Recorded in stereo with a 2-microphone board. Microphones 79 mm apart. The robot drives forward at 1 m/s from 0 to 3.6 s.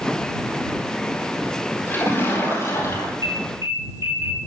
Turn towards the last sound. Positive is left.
turn(degrees=-40)  # may be behind; listen again after turning